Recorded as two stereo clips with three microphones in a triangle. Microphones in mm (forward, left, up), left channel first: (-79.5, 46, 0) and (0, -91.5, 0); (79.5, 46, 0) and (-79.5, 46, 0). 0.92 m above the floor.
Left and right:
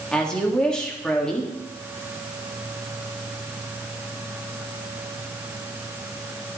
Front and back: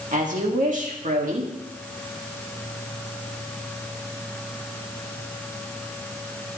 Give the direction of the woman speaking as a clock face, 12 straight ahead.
5 o'clock.